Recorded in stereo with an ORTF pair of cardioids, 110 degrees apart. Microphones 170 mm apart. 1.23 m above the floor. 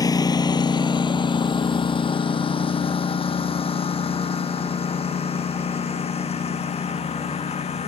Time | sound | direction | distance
0.0 | a lawn mower | 20° left | ?